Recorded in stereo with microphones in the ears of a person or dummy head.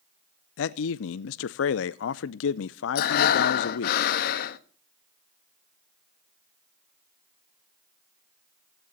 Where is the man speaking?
85° left, 0.6 m.